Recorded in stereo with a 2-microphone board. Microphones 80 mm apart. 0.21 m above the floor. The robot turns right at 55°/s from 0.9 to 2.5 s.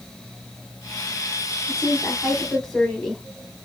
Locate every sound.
1.7 s a woman speaking: 120° left, 1.2 m; by 3.2 s 165° left, 1.2 m